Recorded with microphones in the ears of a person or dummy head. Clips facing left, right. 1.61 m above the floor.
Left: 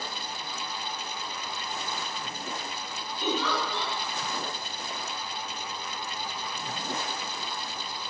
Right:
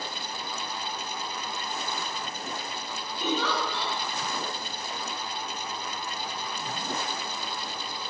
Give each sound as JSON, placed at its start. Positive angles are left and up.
{"t": 3.2, "sound": "a giggle", "side_deg": -15, "distance_m": 1.9}